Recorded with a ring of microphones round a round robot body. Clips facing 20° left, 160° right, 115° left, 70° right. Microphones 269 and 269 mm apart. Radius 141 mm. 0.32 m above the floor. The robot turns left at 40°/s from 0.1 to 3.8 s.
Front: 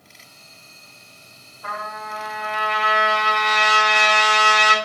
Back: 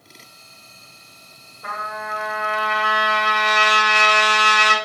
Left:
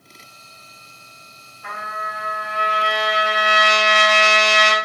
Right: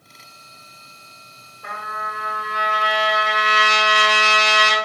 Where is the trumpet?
100° right, 1.7 m; by 4.7 s 175° left, 1.7 m.